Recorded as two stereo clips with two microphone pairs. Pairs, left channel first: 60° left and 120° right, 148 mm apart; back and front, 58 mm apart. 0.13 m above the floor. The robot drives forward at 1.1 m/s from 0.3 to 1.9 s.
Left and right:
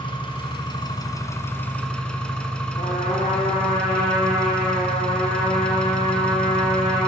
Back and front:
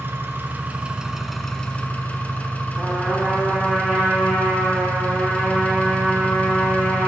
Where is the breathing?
No breathing in this recording.